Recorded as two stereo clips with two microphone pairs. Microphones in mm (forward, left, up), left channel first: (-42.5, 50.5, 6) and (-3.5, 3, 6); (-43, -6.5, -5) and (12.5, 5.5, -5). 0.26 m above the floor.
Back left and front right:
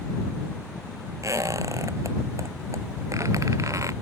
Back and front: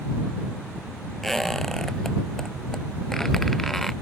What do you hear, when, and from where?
1.2 s a squeak: 80° right